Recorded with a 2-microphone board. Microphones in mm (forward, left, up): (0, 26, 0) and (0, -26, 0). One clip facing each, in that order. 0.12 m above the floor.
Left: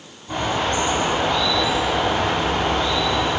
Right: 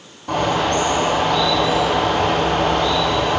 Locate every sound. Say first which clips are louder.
0.3 s a bird: right 4 dB; 60° right (ahead or behind), 2.5 m